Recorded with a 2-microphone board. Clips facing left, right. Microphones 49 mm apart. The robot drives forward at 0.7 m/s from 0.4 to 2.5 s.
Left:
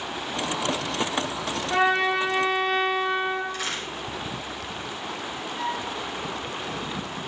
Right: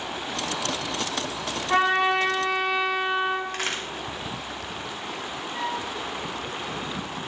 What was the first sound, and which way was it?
A trumpet, 45° right (ahead or behind).